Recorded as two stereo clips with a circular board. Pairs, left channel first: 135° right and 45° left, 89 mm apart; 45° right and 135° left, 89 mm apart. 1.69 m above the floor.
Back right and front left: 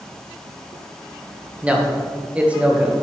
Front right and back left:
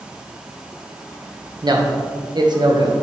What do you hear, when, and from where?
1.6 s a man speaking: 120° left, 1.1 m